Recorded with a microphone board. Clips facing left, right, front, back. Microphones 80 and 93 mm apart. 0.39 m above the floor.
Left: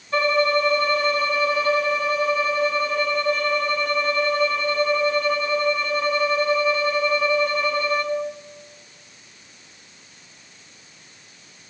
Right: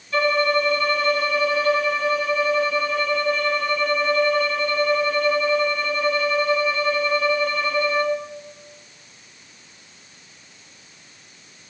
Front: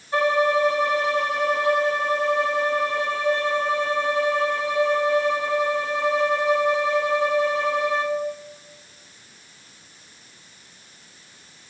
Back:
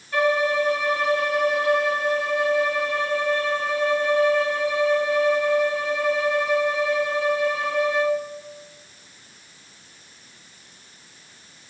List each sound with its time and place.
0.1 s a violin: 50° left, 1.6 m